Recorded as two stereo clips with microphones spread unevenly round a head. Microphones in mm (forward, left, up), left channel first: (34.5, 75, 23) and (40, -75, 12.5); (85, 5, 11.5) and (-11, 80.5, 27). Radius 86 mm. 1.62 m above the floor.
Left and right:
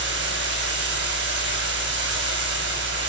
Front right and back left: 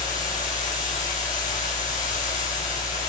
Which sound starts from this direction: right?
Running water, at 0.0 s.